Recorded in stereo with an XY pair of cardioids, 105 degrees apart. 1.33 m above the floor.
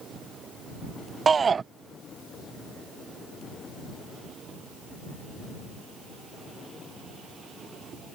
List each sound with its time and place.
1.3 s a shout: 35° right